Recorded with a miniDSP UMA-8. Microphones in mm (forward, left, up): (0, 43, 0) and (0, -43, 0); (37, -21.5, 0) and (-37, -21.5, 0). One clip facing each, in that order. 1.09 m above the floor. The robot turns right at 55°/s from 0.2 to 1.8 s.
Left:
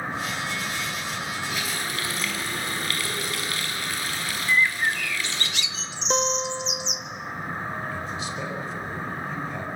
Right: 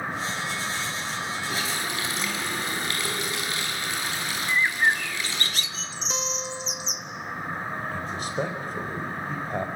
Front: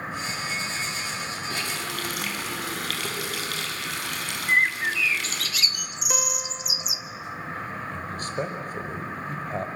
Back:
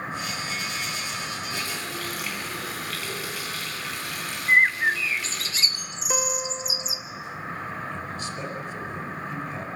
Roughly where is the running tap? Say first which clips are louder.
Right 1 dB, front 1 dB; ahead right.